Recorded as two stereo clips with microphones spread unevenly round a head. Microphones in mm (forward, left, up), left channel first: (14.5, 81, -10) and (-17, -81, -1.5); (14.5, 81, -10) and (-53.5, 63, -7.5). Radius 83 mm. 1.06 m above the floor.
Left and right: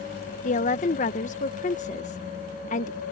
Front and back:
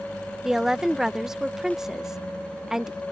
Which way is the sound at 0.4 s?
110° left.